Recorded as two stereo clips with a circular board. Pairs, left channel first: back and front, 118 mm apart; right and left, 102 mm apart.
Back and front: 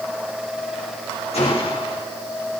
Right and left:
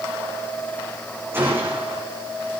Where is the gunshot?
160° left, 9.5 m.